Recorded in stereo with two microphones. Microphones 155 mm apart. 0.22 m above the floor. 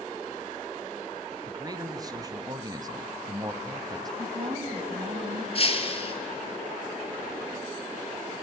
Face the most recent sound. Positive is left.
turn(degrees=40)  # may be behind; listen again after turning